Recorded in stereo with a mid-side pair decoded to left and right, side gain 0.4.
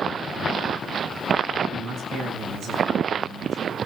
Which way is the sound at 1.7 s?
70° right.